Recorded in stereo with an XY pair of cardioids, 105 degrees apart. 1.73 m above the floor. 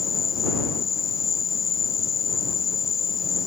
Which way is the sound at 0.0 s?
40° left.